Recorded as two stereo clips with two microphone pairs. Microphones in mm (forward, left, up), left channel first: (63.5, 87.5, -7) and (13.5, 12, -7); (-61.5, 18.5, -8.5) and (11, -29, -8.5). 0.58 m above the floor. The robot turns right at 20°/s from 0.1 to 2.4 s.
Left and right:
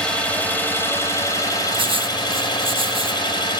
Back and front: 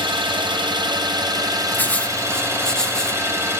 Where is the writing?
145° right, 0.5 m; by 3.2 s 130° right, 0.5 m.